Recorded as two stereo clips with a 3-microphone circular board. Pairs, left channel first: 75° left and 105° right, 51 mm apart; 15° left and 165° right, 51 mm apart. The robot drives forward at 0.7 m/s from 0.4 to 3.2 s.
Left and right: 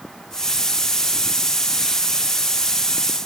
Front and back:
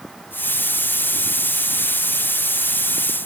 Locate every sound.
Only background noise.